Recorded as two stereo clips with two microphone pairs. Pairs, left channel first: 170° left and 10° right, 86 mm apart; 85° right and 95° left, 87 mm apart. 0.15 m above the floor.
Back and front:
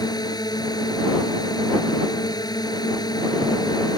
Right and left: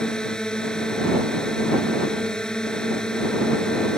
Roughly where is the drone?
Behind.